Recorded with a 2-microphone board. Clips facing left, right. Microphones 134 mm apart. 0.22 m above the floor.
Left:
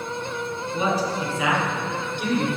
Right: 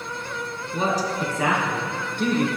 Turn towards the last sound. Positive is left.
turn(degrees=-50)  # may be behind; listen again after turning